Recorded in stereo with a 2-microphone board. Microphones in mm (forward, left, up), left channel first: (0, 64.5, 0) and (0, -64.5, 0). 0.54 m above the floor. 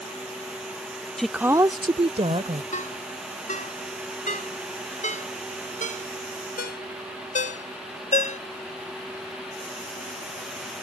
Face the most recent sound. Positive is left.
turn(degrees=80)